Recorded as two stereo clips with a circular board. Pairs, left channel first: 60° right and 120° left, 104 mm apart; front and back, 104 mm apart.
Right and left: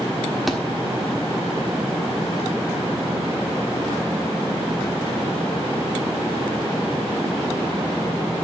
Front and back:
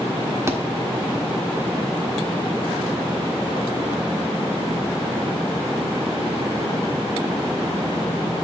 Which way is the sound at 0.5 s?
150° right.